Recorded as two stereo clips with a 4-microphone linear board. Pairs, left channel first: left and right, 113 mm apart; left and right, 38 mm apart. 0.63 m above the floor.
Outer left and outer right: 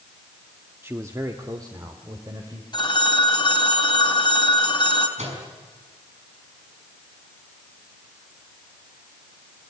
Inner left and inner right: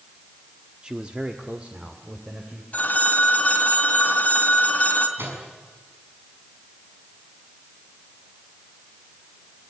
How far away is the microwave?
About 6 m.